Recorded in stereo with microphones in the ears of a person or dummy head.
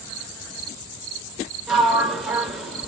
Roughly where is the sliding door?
Centre.